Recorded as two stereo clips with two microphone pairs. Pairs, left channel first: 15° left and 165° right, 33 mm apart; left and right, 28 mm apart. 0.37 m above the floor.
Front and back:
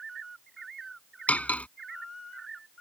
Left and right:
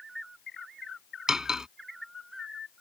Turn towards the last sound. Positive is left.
turn(degrees=-25)